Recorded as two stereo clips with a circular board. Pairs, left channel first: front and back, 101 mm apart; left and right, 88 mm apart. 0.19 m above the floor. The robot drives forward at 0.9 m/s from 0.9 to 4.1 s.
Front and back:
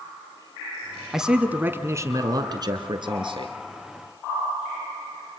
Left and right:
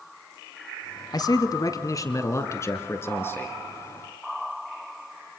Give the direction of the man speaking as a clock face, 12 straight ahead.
9 o'clock.